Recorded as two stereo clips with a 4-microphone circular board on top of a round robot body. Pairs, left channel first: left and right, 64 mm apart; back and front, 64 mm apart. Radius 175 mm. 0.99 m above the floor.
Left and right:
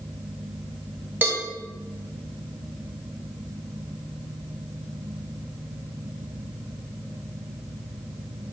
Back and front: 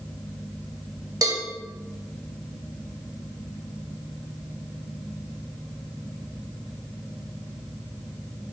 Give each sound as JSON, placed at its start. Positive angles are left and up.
{"t": 1.2, "sound": "a cowbell", "azimuth_deg": -30, "distance_m": 0.7}